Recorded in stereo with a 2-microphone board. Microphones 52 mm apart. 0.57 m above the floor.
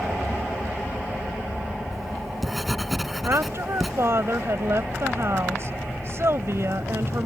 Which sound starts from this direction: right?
A woman speaking, at 3.2 s.